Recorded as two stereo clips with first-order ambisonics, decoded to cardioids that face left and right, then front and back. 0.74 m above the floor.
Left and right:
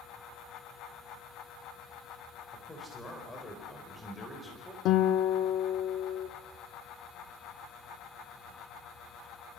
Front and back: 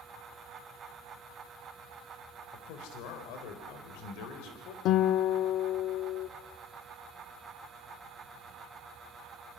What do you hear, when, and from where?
2.5 s a man speaking: 15° left, 4 m
4.8 s a guitar: 45° left, 0.9 m